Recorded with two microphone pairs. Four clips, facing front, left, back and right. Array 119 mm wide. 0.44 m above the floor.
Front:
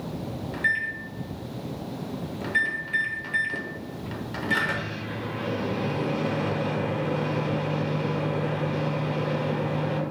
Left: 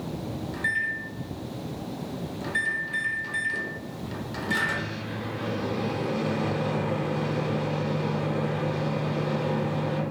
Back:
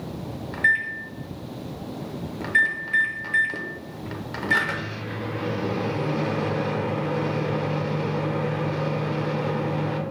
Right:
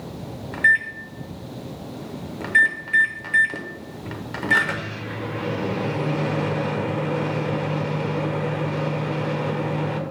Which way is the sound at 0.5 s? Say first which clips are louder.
Right 11 dB, back 5 dB; 110° right.